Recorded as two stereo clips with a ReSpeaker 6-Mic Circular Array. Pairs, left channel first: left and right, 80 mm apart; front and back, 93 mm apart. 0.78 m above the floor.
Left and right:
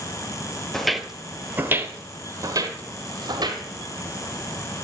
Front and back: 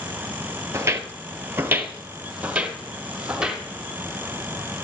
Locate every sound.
0.7 s footsteps: 170° left, 0.8 m; by 3.6 s 100° right, 1.6 m